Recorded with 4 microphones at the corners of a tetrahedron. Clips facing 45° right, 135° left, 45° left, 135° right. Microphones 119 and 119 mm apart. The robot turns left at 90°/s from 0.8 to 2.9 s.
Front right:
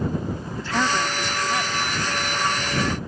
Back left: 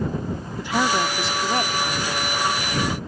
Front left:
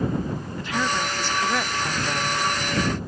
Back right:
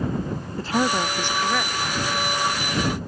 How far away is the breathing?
No breathing in this recording.